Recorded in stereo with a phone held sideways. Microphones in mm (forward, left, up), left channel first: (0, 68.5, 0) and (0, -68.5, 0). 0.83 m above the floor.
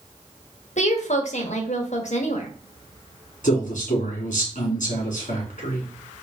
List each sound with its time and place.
0.8 s a woman speaking: 60° left (ahead or behind), 1.0 m
3.4 s a man speaking: 65° left (ahead or behind), 2.5 m